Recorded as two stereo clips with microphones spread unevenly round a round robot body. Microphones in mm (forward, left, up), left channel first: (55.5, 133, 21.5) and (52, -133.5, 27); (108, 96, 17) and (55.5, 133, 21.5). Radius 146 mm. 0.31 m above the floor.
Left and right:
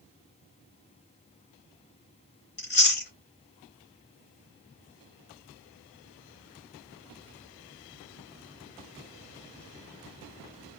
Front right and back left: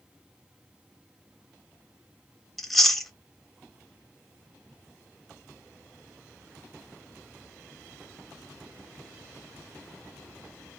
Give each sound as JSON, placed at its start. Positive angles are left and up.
{"t": 2.6, "sound": "chewing", "azimuth_deg": 50, "distance_m": 1.0}